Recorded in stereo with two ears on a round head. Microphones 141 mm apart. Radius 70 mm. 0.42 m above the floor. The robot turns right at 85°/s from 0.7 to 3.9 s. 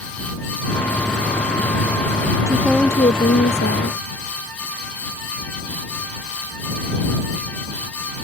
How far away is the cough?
I don't hear a cough.